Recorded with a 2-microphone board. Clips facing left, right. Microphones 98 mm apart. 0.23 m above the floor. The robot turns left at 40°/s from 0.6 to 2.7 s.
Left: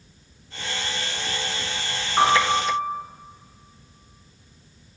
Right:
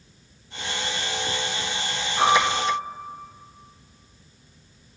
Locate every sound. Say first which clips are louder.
2.2 s a piano: left 1 dB; 55° left (ahead or behind), 2.5 m; by 2.8 s 60° left (ahead or behind), 2.5 m